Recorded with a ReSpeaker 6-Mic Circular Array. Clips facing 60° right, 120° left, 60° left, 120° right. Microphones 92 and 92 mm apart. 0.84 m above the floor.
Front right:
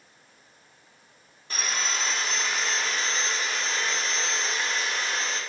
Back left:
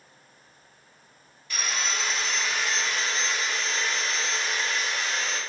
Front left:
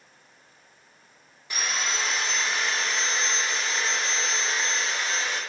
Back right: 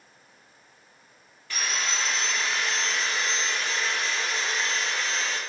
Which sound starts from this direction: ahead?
Sawing, at 1.5 s.